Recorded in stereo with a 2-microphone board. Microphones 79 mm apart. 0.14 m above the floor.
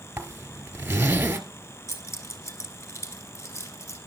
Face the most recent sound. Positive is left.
turn(degrees=40)  # may be behind; listen again after turning